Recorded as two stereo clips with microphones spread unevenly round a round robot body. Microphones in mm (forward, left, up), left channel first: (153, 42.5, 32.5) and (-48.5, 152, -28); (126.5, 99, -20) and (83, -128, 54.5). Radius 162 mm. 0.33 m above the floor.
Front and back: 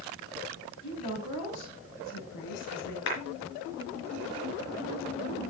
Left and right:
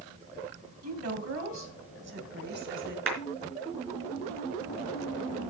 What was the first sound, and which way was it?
A woman speaking, 80° right.